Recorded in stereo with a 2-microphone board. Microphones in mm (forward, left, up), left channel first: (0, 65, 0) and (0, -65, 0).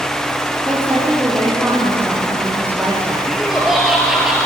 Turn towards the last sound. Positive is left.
turn(degrees=-5)  # may be behind; listen again after turning